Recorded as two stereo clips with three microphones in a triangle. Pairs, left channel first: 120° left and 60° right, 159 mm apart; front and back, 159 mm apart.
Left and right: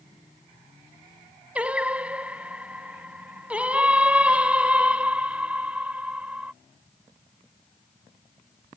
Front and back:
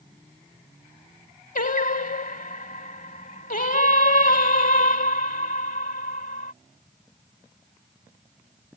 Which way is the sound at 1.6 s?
20° left.